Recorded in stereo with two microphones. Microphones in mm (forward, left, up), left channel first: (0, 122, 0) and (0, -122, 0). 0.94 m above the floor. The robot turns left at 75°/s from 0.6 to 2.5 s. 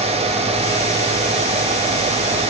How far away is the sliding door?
No sliding door in this recording.